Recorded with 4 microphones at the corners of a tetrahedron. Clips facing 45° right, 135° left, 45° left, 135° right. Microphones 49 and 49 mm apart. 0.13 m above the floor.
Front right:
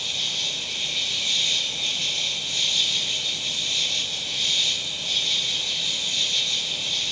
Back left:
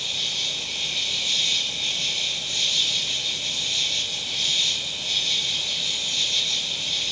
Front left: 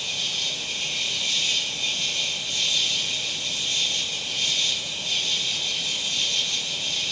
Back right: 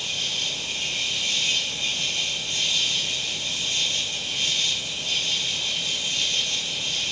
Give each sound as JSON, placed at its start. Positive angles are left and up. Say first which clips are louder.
{"t": 0.0, "sound": "an insect", "louder": "even, even", "azimuth_deg": -135, "distance_m": 0.8}